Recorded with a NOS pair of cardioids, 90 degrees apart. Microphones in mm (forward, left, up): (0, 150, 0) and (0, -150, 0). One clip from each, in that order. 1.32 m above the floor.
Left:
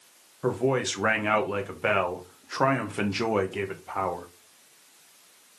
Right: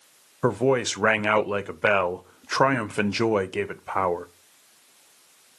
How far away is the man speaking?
About 0.5 m.